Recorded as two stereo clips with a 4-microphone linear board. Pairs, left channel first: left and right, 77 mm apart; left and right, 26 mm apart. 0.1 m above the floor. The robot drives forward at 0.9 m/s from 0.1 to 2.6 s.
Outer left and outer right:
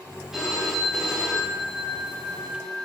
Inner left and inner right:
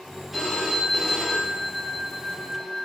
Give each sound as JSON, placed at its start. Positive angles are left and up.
{"t": 0.3, "sound": "a phone ringing", "side_deg": -5, "distance_m": 8.5}